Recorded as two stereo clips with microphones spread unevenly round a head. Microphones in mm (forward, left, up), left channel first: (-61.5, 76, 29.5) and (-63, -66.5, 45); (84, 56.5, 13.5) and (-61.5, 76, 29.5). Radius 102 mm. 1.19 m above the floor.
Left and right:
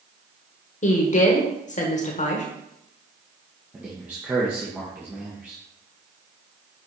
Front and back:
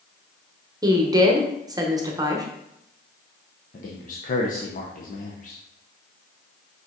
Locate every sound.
0.8 s a woman speaking: 105° left, 1.2 m
3.7 s a man speaking: 10° right, 0.9 m